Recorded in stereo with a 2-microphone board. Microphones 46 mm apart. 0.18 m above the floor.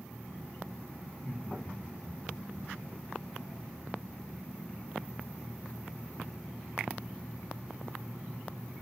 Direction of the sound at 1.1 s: 20° left (ahead or behind).